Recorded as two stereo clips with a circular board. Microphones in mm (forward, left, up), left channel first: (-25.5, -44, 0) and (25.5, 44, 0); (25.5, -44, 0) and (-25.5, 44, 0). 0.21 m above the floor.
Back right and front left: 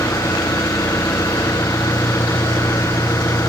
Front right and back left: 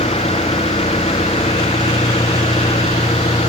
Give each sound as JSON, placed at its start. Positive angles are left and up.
{"t": 0.0, "sound": "an engine running", "azimuth_deg": -60}